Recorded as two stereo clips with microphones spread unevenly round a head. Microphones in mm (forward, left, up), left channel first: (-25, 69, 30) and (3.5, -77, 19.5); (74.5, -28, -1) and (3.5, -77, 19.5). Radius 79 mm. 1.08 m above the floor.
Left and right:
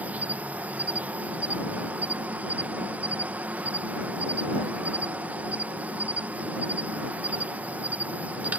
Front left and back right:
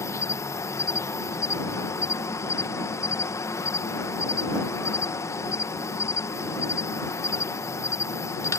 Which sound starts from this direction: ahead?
An insect, at 0.0 s.